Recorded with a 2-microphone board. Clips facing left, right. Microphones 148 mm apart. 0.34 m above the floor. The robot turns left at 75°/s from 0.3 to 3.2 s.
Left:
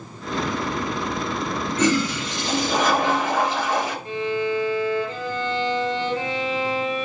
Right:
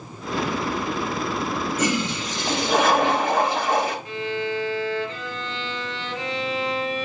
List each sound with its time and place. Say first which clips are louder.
1.8 s a toilet flushing: left 7 dB; 10° right, 2 m; by 4.0 s 115° right, 2 m
4.0 s a violin: left 3 dB; 40° left (ahead or behind), 3 m